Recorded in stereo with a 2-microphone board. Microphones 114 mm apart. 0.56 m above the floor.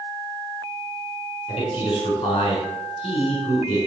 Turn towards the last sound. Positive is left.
turn(degrees=45)  # may be behind; listen again after turning